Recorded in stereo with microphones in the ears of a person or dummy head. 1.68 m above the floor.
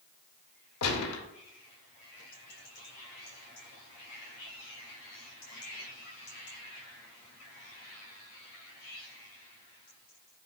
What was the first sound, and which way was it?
A gunshot, 80° left.